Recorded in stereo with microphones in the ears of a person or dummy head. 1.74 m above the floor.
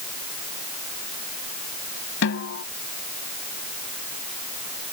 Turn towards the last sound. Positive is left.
turn(degrees=70)  # may be behind; listen again after turning